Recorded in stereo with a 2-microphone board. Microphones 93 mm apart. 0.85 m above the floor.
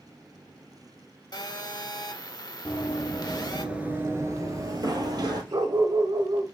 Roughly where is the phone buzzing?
Left.